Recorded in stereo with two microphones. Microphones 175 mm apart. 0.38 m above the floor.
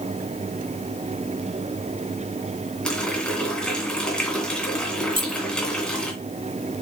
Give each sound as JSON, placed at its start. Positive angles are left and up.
{"t": 2.9, "sound": "a running tap", "side_deg": 5, "distance_m": 2.5}
{"t": 5.1, "sound": "keys jangling", "side_deg": -30, "distance_m": 1.4}